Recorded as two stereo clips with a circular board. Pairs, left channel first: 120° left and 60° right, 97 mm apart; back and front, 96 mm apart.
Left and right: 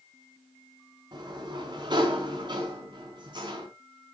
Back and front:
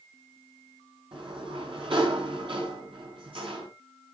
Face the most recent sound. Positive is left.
turn(degrees=-25)